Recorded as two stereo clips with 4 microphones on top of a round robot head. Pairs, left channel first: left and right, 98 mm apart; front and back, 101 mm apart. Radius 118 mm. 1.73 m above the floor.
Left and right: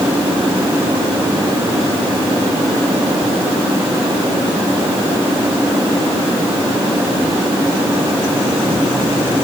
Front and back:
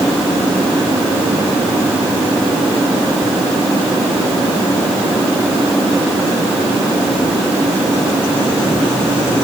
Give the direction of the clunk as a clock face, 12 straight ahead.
I don't hear a clunk.